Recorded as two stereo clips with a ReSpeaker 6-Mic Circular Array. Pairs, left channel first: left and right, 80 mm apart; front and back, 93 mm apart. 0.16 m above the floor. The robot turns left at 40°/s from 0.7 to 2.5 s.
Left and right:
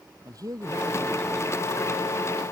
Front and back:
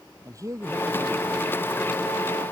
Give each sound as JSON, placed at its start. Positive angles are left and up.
{"t": 0.2, "sound": "a man speaking", "azimuth_deg": -130}